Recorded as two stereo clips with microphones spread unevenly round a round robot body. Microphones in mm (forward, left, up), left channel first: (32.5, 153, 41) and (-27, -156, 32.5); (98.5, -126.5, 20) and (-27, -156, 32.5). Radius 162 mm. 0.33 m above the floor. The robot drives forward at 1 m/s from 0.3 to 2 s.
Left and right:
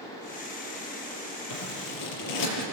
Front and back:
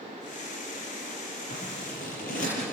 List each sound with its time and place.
1.5 s scissors: 50° left, 6 m; by 2.6 s 55° left, 5.5 m